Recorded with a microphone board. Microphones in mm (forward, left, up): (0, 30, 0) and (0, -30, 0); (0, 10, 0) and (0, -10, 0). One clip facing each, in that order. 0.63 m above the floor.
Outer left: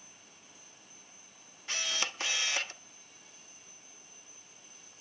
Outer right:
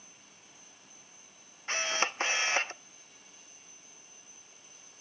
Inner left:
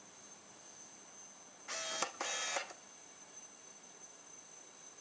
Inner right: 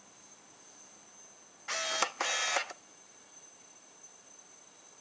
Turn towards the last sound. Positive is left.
turn(degrees=-30)  # may be behind; listen again after turning